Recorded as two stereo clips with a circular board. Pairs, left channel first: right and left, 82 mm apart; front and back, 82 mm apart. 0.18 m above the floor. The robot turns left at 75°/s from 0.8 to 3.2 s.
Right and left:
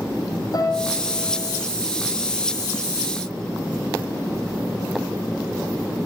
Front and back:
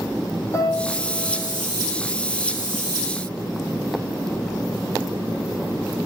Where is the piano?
50° right, 6 m; by 1.6 s 110° right, 6 m.